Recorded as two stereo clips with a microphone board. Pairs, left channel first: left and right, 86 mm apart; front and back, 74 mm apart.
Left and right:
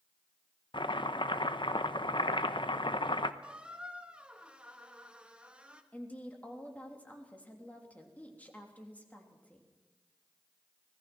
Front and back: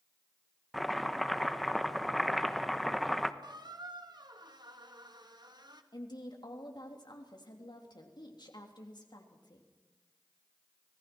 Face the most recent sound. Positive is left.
turn(degrees=15)